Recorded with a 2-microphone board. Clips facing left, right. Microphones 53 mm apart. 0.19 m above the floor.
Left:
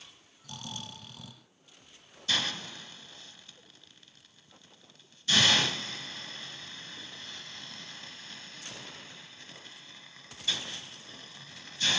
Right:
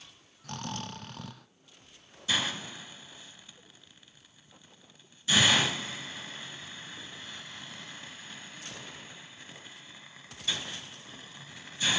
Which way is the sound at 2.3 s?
15° right (ahead or behind).